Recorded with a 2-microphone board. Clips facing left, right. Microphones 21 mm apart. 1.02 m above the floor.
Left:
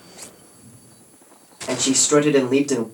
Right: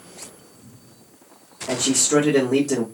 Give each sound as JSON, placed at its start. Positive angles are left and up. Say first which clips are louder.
{"t": 1.7, "sound": "a man speaking", "louder": "left 2 dB", "side_deg": 30, "distance_m": 1.4}